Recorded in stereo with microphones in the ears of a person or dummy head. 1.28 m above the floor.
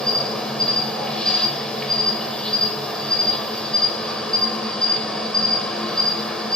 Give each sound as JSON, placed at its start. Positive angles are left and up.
{"t": 0.0, "sound": "an insect", "side_deg": 5, "distance_m": 1.8}